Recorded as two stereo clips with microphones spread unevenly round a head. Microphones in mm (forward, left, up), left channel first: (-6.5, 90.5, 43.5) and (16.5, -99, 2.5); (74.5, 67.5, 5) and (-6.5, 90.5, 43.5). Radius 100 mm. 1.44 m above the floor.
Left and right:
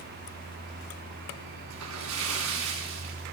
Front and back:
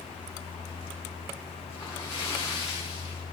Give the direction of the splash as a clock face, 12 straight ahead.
3 o'clock.